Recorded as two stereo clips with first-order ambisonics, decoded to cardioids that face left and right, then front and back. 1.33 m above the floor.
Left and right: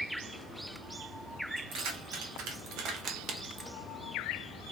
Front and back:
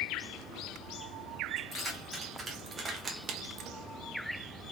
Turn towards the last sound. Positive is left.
turn(degrees=180)